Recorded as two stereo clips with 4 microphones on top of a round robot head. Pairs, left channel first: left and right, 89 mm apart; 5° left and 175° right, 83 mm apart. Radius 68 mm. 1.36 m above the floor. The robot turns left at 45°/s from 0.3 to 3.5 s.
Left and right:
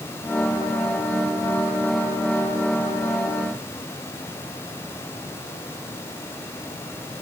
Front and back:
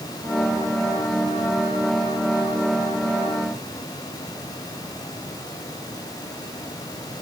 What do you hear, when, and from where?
Only background noise.